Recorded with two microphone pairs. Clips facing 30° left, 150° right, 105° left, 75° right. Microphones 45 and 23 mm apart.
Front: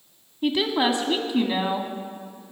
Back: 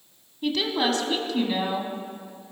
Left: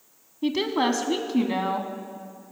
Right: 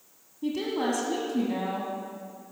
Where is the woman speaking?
95° left, 1.4 m.